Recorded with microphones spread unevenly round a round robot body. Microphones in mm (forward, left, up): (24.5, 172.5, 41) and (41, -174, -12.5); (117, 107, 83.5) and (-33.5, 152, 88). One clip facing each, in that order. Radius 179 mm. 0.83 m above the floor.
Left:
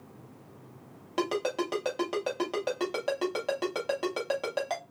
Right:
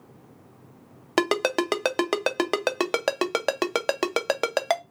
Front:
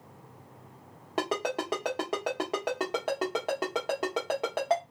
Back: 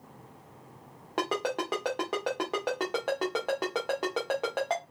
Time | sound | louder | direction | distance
1.2 | a ringtone | right 6 dB, even | 100° right | 0.6 m